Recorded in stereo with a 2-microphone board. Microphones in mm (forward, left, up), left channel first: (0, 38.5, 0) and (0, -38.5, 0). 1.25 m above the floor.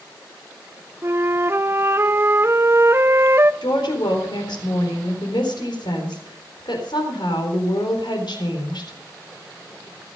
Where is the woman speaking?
75° left (ahead or behind), 4 m.